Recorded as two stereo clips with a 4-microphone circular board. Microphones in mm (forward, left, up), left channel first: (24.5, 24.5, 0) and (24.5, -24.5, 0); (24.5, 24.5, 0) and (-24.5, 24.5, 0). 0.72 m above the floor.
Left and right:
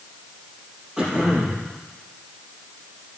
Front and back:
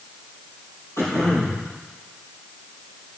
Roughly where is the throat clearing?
Ahead.